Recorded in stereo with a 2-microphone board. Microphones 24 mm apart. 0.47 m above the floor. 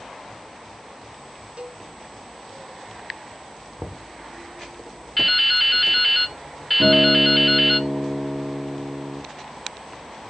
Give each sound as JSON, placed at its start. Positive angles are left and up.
{"t": 1.6, "sound": "a cowbell", "side_deg": -60, "distance_m": 1.6}
{"t": 3.8, "sound": "knocking", "side_deg": -45, "distance_m": 0.8}
{"t": 5.2, "sound": "dripping", "side_deg": 0, "distance_m": 0.7}
{"t": 6.8, "sound": "a guitar", "side_deg": -70, "distance_m": 3.5}